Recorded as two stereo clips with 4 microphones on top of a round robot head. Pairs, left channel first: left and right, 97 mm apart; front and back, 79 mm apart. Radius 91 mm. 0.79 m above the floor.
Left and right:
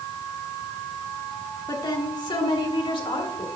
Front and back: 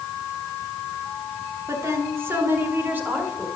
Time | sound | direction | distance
1.7 | a woman speaking | 135° left | 2 m